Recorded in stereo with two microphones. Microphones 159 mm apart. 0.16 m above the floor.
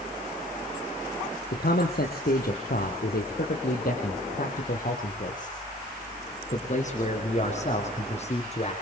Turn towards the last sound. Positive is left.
turn(degrees=40)  # may be behind; listen again after turning